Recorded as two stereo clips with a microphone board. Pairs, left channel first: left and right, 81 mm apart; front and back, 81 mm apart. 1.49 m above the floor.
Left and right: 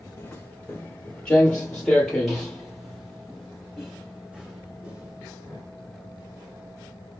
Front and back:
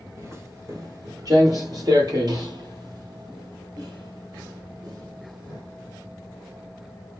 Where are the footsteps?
150° left, 1.9 m; by 5.6 s 165° right, 4 m.